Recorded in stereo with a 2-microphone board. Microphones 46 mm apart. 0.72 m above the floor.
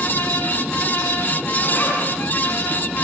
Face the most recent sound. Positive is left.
turn(degrees=45)  # may be behind; listen again after turning